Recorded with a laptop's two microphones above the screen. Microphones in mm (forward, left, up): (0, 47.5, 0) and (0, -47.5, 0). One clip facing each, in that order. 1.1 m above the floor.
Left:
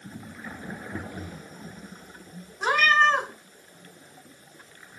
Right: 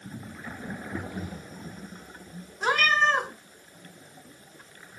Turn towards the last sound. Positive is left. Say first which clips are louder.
# left 3 dB
turn(degrees=5)  # may be behind; listen again after turning